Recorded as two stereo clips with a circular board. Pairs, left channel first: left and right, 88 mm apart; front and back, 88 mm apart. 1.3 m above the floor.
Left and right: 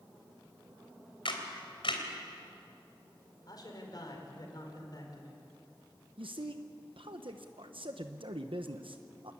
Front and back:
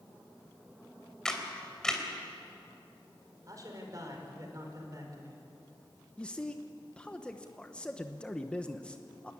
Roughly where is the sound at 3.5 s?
Behind left.